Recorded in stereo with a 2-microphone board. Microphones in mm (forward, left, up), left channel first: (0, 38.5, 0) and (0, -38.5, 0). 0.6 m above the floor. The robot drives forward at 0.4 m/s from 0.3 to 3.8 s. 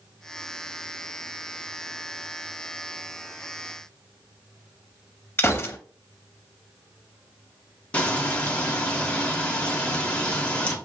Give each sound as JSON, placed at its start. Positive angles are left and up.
{"t": 5.4, "sound": "a gunshot", "side_deg": 30, "distance_m": 0.7}
{"t": 7.9, "sound": "frying", "side_deg": 15, "distance_m": 1.0}